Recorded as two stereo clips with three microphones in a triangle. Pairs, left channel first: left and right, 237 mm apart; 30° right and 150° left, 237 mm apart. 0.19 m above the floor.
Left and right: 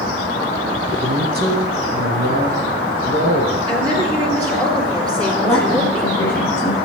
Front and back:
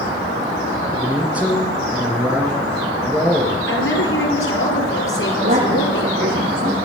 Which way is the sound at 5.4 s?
175° left.